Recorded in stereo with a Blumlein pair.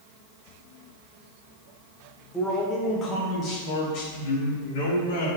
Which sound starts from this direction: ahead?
A man speaking, at 2.3 s.